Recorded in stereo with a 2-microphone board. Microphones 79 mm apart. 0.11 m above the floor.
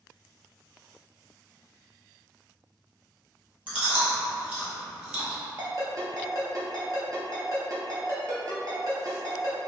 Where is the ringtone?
45° right (ahead or behind), 1.1 m.